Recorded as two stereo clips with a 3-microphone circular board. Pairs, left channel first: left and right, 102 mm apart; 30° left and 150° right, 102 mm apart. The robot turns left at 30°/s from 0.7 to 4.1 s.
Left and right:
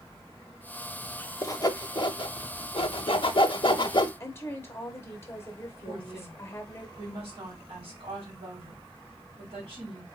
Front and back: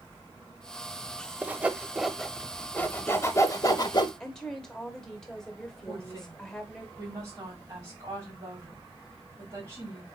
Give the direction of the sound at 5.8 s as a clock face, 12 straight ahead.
3 o'clock.